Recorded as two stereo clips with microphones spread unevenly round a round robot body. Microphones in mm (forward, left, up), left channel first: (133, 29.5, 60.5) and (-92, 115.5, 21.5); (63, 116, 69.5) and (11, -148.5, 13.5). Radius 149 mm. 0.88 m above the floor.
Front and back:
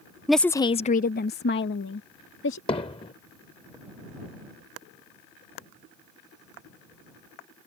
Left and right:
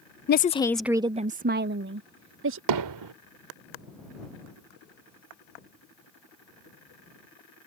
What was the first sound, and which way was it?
A woman speaking, 95° left.